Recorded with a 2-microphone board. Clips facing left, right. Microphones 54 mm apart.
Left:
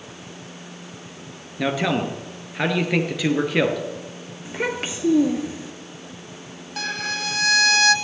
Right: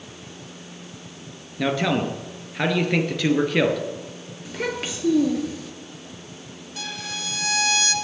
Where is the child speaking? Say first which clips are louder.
Left 2 dB; 20° left (ahead or behind), 1.9 m.